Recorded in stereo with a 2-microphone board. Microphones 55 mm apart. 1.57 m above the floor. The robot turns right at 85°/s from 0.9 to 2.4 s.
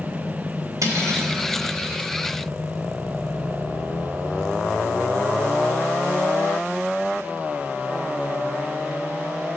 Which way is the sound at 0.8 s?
95° right.